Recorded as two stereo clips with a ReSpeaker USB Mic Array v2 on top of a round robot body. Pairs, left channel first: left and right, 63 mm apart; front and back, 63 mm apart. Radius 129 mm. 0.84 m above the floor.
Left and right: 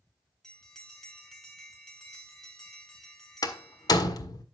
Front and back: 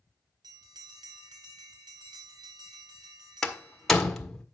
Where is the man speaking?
No man speaking in this recording.